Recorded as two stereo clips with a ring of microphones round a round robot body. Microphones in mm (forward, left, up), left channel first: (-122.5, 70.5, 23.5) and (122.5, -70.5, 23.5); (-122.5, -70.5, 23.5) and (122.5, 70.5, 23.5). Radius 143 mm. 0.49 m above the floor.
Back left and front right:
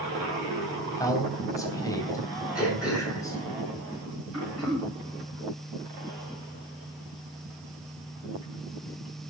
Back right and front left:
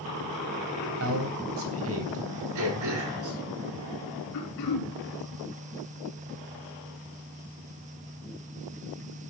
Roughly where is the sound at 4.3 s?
Behind right.